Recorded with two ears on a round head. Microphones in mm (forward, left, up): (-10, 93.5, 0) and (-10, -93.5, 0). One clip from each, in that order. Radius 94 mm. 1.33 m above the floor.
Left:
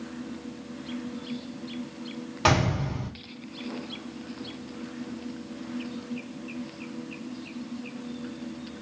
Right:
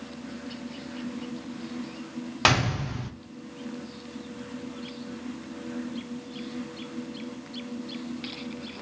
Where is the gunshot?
40° right (ahead or behind), 1.0 m.